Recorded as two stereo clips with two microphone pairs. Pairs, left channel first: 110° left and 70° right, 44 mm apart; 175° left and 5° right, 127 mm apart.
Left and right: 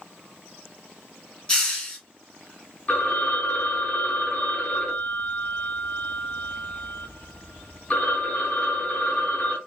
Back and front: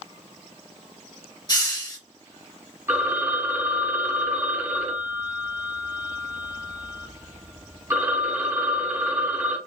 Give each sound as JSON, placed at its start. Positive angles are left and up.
{"t": 1.5, "sound": "a hiss", "azimuth_deg": 170, "distance_m": 1.7}
{"t": 2.9, "sound": "a phone ringing", "azimuth_deg": 60, "distance_m": 1.4}